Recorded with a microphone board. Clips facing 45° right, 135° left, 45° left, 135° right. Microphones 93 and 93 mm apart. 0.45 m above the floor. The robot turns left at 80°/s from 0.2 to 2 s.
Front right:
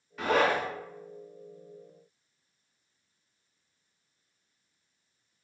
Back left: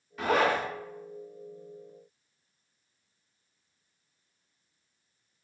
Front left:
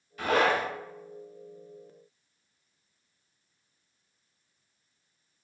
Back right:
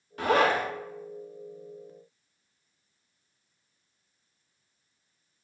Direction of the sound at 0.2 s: 135° right.